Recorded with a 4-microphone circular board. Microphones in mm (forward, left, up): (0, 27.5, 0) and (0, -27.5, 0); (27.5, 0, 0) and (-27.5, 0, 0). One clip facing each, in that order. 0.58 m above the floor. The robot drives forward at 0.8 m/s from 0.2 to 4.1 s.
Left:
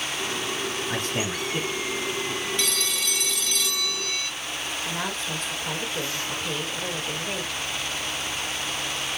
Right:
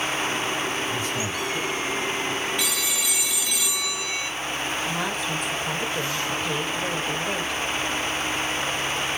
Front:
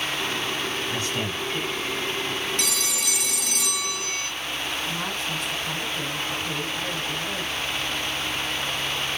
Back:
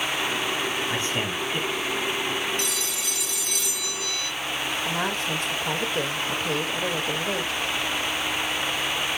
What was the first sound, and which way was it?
A man speaking, 115° left.